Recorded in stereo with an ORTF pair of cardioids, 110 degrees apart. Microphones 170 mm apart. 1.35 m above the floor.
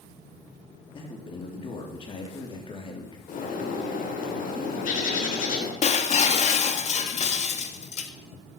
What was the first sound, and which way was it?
A man speaking, 30° left.